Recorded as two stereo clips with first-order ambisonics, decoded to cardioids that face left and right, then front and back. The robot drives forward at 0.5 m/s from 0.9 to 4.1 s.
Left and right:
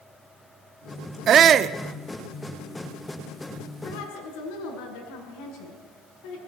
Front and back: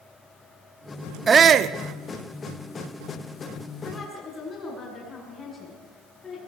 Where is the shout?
120° right, 0.6 m; by 1.8 s 145° right, 0.8 m.